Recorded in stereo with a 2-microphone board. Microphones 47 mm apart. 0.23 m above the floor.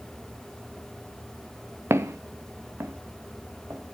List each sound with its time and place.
1.9 s footsteps: 70° right (ahead or behind), 1.2 m; by 3.8 s 55° right (ahead or behind), 3 m